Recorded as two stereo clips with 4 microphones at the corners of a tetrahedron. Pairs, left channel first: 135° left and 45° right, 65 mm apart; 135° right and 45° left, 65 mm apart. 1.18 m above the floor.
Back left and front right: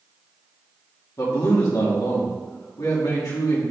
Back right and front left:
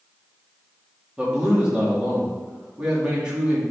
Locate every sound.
1.2 s a man speaking: 120° left, 2.5 m